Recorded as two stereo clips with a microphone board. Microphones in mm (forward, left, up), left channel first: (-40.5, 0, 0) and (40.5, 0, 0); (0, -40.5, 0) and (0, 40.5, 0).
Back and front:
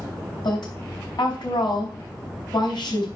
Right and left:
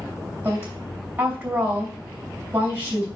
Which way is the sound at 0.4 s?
150° left.